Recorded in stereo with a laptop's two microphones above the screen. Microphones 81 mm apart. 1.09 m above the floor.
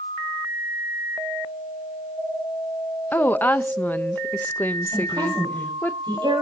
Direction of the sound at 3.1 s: 25° left (ahead or behind).